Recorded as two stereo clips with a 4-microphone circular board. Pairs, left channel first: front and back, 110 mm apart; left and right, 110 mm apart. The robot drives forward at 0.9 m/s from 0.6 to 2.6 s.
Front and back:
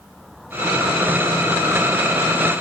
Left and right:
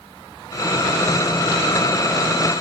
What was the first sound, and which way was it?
Only background noise.